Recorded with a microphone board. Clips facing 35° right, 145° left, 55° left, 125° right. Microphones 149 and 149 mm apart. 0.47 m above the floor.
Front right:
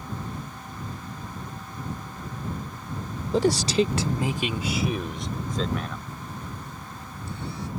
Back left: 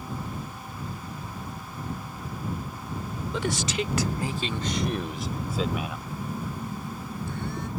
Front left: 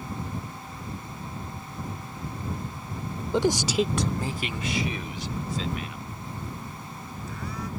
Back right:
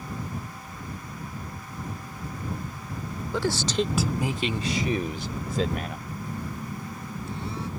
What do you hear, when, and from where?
3.3 s a man speaking: straight ahead; by 6.0 s 135° right
6.1 s a phone buzzing: 175° left